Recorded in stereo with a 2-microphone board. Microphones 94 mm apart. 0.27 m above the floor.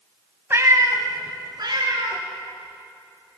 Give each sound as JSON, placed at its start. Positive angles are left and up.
{"t": 0.5, "sound": "a cat meowing", "side_deg": -30, "distance_m": 0.8}